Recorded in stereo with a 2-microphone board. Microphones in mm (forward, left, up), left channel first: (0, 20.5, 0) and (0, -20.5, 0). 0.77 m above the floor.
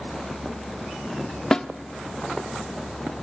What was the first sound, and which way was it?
A snare drum, 15° left (ahead or behind).